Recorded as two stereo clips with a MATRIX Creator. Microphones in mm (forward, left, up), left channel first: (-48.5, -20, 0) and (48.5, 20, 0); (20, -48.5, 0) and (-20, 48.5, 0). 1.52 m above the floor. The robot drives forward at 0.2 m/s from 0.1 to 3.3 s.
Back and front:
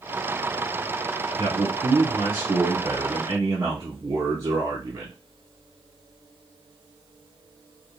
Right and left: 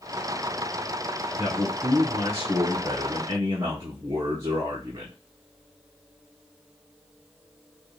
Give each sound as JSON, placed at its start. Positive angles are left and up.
{"t": 1.4, "sound": "a man speaking", "azimuth_deg": 60, "distance_m": 1.3}